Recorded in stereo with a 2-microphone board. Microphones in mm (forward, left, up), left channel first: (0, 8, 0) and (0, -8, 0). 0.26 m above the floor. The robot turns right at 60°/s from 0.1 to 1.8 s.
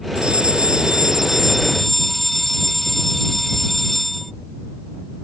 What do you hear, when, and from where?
0.1 s a fire alarm: 85° right; by 4.3 s 15° left